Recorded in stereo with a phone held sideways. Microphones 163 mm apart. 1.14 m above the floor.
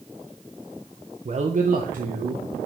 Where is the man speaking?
45° right (ahead or behind), 0.7 m; by 2.4 s 65° right (ahead or behind), 1.3 m.